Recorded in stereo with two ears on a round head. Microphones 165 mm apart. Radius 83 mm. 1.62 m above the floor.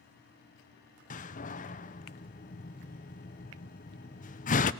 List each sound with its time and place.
1.1 s a door slam: 40° left (ahead or behind), 0.6 m